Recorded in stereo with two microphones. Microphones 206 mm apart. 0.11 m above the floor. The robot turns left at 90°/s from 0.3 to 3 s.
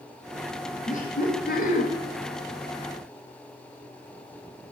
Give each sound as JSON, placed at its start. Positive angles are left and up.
{"t": 0.9, "sound": "laughter", "azimuth_deg": 130, "distance_m": 2.0}